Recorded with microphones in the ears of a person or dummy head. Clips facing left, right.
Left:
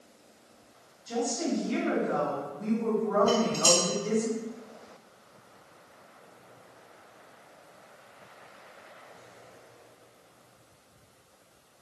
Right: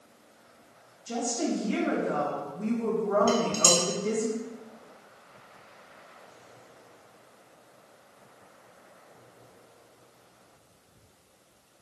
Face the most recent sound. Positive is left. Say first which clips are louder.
# even
turn(degrees=-80)